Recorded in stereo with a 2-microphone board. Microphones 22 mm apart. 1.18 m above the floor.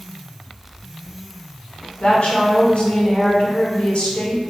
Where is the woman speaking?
55° left (ahead or behind), 1.4 m.